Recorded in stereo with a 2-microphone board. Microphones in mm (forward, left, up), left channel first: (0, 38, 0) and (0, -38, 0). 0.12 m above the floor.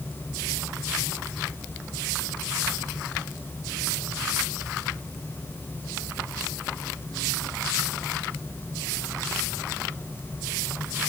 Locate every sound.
Only background noise.